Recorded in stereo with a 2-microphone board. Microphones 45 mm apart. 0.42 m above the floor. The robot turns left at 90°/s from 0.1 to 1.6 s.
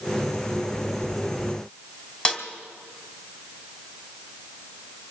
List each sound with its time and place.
2.2 s a snare drum: 25° left (ahead or behind), 1.8 m